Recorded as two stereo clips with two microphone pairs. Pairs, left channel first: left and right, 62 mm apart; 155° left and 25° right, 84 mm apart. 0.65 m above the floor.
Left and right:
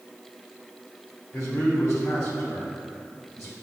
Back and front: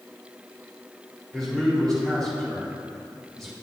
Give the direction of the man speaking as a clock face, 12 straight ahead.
10 o'clock.